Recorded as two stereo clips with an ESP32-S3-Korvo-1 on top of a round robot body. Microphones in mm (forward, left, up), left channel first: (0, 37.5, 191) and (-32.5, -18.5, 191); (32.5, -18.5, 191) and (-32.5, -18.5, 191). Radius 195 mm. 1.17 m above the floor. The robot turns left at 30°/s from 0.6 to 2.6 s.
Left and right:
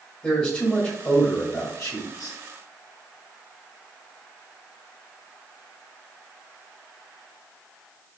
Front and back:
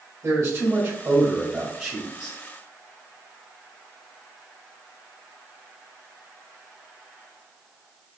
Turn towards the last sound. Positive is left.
turn(degrees=90)